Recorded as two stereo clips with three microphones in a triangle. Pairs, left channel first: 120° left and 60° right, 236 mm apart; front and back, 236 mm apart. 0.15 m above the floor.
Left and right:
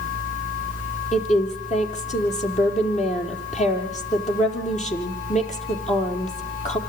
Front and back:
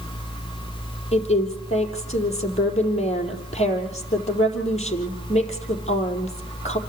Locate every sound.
1.1 s a woman speaking: 60° left, 4.5 m